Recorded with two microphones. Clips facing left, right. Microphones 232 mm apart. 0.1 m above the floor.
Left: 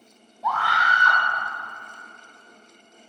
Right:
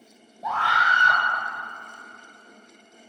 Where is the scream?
25° right (ahead or behind), 2 m.